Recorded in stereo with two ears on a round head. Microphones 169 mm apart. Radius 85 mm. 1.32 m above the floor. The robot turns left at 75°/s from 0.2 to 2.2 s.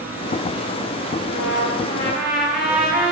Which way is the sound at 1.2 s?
75° left.